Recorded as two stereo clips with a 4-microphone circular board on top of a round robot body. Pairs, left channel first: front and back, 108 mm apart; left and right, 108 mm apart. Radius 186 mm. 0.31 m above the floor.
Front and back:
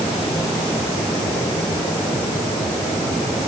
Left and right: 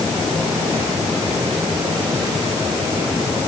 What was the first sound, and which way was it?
Only background noise.